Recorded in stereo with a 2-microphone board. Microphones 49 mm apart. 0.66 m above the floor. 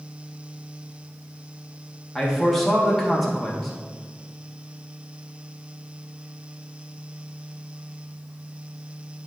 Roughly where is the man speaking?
Centre.